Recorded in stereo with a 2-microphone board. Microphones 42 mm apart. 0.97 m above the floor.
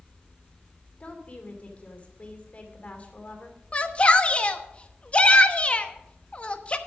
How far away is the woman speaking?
About 2.5 m.